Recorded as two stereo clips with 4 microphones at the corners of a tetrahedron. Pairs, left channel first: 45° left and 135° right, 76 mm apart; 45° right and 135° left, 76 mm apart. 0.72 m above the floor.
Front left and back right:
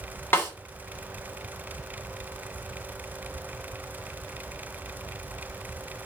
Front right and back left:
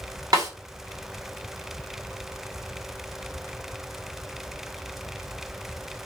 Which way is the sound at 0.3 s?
105° left.